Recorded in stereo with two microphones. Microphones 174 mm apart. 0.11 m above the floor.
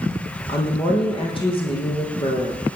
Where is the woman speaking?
30° left (ahead or behind), 4.5 m.